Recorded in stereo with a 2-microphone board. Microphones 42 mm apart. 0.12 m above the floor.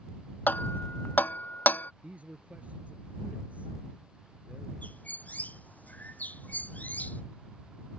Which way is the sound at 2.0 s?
35° right (ahead or behind).